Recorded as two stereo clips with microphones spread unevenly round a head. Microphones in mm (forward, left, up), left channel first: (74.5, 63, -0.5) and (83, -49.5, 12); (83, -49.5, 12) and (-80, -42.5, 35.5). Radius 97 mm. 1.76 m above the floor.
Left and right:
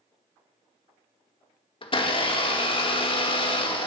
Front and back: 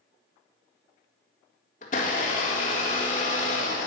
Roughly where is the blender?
Ahead left.